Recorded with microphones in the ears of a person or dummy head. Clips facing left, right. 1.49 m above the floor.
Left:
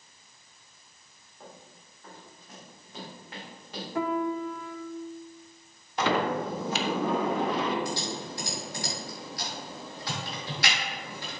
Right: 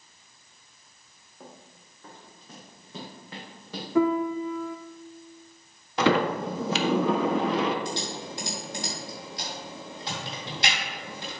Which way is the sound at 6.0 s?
60° right (ahead or behind).